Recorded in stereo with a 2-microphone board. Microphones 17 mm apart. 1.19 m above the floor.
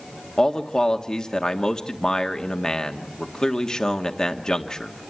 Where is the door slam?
I don't hear a door slam.